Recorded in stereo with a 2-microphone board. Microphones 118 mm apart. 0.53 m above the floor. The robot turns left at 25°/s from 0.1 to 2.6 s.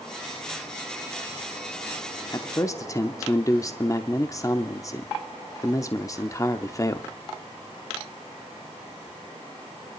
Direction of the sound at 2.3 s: 30° left (ahead or behind).